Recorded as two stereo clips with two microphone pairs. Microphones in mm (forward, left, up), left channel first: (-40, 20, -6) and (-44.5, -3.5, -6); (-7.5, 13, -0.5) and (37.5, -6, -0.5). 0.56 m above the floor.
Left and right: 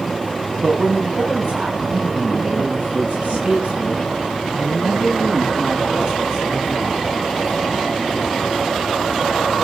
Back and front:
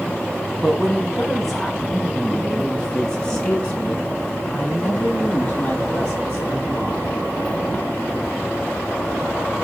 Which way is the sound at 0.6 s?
115° right.